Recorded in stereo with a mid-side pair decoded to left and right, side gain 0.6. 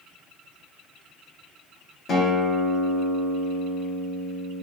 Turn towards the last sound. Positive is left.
turn(degrees=40)